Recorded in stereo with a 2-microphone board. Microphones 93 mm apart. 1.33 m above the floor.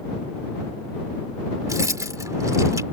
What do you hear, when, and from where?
1.7 s keys jangling: 35° right (ahead or behind)